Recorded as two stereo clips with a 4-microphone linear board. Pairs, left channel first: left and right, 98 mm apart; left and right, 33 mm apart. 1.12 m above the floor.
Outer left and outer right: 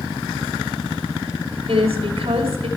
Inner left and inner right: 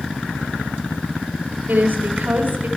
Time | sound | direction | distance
1.7 | a woman speaking | 70° right (ahead or behind) | 2.5 m